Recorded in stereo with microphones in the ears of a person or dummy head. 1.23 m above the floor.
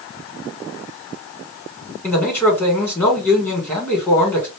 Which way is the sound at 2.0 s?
10° left (ahead or behind).